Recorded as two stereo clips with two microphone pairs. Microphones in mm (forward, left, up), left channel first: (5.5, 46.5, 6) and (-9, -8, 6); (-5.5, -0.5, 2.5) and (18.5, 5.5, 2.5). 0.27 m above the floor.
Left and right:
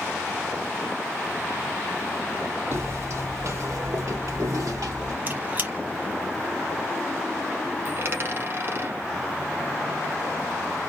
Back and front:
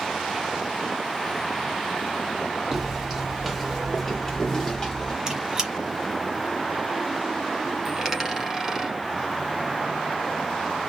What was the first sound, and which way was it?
Footsteps, 65° right.